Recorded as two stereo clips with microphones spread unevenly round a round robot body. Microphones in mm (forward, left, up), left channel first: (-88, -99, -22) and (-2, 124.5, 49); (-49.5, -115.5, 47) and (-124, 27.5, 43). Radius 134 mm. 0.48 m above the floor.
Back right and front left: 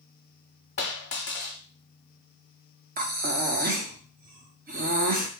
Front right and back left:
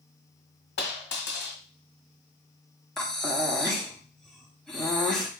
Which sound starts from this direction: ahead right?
A dropped coin, at 0.8 s.